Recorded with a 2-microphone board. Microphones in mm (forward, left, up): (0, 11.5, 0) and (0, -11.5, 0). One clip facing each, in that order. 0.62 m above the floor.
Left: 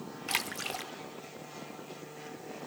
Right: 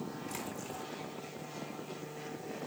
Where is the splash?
75° left (ahead or behind), 0.6 m.